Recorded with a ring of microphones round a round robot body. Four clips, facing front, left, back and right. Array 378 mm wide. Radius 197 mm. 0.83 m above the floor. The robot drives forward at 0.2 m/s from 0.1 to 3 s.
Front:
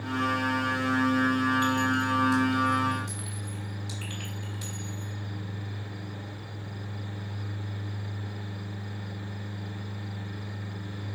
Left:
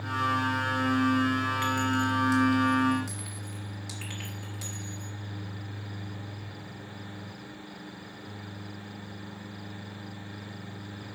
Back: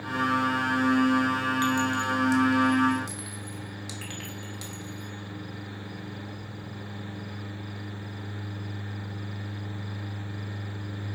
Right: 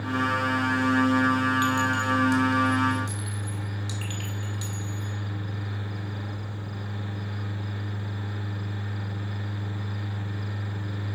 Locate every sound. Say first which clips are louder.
1.6 s a clink: right 3 dB, even; 165° right, 1.4 m; by 5.2 s 170° right, 1.7 m